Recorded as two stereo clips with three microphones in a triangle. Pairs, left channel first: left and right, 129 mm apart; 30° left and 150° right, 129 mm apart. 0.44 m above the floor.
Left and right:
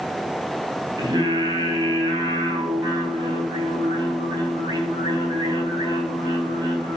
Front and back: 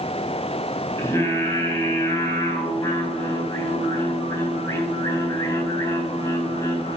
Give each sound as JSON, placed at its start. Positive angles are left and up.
{"t": 1.0, "sound": "singing", "azimuth_deg": -35, "distance_m": 3.0}